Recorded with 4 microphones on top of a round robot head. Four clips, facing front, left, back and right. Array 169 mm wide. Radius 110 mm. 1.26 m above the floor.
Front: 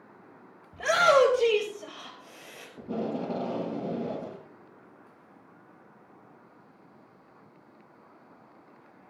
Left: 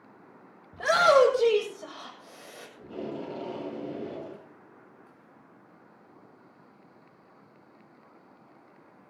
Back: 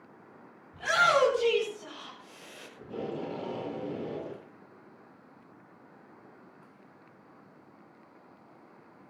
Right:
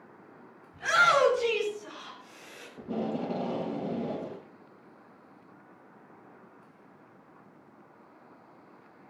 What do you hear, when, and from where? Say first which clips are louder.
0.7 s a shout: left 4 dB, front 4 dB; 55° left, 7.5 m; by 2.7 s 60° left, 8 m
2.8 s tape being pulled: right 4 dB, front 4 dB; 30° right, 8.5 m